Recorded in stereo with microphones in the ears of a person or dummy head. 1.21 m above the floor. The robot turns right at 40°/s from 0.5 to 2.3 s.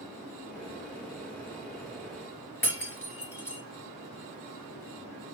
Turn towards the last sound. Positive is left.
turn(degrees=10)  # may be behind; listen again after turning